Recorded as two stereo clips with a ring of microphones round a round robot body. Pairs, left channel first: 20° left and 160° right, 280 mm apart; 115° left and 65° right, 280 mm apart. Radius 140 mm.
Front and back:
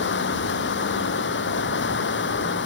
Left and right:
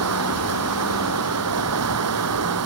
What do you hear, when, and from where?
0.0 s running water: 30° right